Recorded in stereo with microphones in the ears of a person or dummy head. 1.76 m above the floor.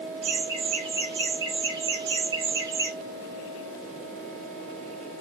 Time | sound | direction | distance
0.2 | laughter | 30° right (ahead or behind) | 5.5 m